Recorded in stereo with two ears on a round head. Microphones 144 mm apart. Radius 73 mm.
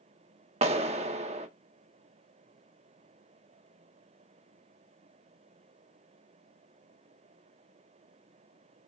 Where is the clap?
40° right (ahead or behind), 0.7 m.